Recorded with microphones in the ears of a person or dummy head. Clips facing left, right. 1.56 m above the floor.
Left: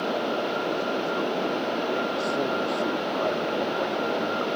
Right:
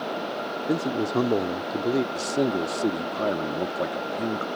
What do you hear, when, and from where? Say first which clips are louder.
0.7 s a man speaking: right 2 dB; 65° right (ahead or behind)
2.1 s a man speaking: right 2 dB; 35° right (ahead or behind)